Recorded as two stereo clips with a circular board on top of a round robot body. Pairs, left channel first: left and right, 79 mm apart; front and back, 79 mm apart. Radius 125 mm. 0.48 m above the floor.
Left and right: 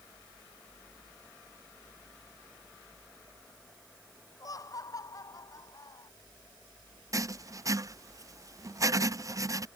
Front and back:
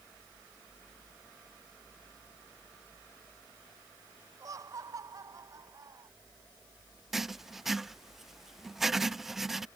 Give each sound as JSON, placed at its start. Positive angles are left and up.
{"t": 4.4, "sound": "laughter", "azimuth_deg": 135}
{"t": 7.1, "sound": "writing", "azimuth_deg": -95}